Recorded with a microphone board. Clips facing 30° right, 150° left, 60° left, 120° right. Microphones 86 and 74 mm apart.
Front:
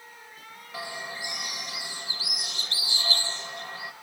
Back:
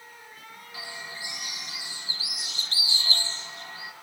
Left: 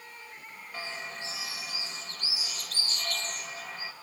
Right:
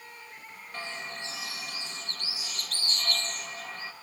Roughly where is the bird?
Ahead right.